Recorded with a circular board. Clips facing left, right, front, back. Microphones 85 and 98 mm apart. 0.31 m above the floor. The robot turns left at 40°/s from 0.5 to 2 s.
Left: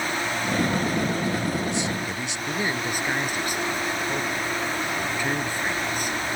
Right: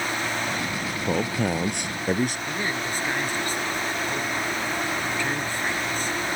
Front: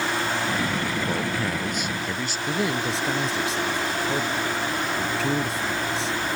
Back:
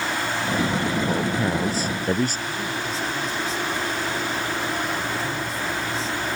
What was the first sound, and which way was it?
A man speaking, 95° right.